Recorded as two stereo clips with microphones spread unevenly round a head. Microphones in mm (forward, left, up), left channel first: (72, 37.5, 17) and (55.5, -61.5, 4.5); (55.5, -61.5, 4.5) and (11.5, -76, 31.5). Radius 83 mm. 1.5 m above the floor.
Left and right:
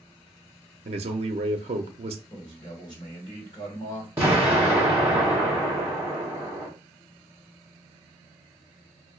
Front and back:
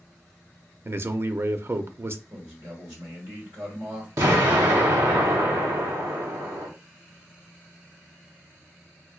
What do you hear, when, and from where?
0.8 s a man speaking: 115° right, 0.6 m
2.3 s a man speaking: 150° left, 1.3 m
4.2 s an explosion: straight behind, 0.9 m